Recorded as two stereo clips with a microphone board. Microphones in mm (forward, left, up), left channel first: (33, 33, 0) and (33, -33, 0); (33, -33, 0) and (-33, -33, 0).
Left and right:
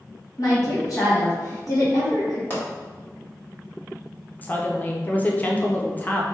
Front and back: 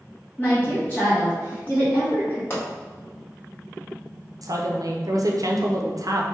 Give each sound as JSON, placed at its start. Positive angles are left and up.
{"t": 0.4, "sound": "a woman speaking", "azimuth_deg": 65, "distance_m": 1.4}
{"t": 2.5, "sound": "a pop", "azimuth_deg": 40, "distance_m": 1.4}
{"t": 4.4, "sound": "a woman speaking", "azimuth_deg": 155, "distance_m": 0.7}